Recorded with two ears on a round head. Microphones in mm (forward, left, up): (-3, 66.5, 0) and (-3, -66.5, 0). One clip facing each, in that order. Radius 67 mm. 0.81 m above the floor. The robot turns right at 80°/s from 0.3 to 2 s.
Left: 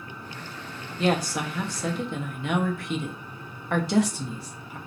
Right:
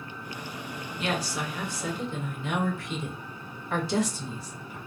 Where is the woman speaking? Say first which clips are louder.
Left 6 dB; 30° left, 0.6 m; by 4.8 s 115° left, 0.6 m.